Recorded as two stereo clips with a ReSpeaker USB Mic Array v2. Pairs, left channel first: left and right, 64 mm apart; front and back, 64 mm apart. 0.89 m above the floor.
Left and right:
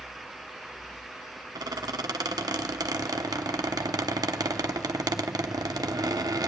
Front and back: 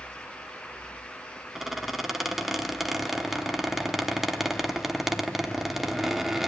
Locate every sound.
1.6 s a squeak: 95° right, 0.9 m